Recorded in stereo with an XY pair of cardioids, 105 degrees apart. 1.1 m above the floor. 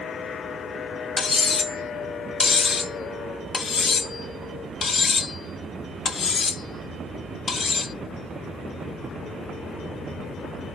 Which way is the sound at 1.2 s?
40° left.